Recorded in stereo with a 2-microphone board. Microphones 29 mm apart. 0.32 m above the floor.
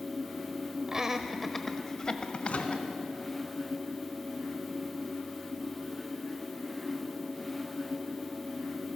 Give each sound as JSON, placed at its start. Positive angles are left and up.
{"t": 0.9, "sound": "laughter", "side_deg": -20, "distance_m": 1.0}
{"t": 2.5, "sound": "a microwave", "side_deg": 45, "distance_m": 2.0}